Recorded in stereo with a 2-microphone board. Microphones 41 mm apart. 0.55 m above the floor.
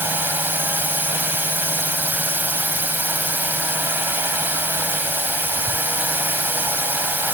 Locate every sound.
0.0 s a drone: 55° right (ahead or behind)